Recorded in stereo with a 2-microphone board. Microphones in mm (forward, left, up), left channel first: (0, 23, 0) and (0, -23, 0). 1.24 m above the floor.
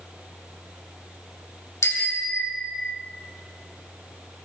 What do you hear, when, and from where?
1.8 s a bicycle bell: 80° left, 2.5 m; by 3.0 s 65° left (ahead or behind), 1.5 m